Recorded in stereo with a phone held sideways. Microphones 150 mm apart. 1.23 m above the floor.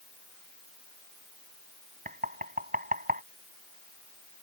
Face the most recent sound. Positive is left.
turn(degrees=-70)  # may be behind; listen again after turning